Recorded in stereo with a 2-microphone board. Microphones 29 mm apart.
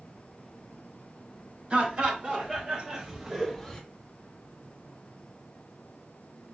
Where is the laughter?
40° right (ahead or behind), 2 m; by 3.8 s 15° left (ahead or behind), 1.0 m.